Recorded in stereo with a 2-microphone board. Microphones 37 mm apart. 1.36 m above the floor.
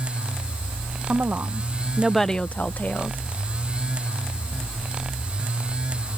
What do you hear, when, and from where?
1.1 s a woman speaking: 70° right (ahead or behind); by 3.2 s 60° left (ahead or behind)